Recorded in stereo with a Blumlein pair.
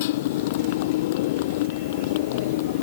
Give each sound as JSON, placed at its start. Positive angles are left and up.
{"t": 0.0, "sound": "a motorcycle", "azimuth_deg": 50}